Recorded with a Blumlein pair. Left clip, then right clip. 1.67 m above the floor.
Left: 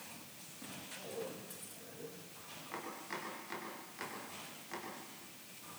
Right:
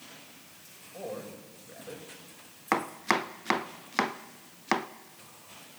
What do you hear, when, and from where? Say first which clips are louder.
0.9 s a man speaking: right 7 dB; 40° right, 8 m
2.7 s chopping: right 17 dB; 45° right, 0.9 m